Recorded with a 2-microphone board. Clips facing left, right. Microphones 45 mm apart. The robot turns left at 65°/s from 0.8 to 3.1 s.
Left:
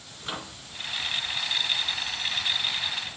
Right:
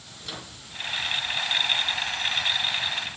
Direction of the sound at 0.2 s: 30° left (ahead or behind).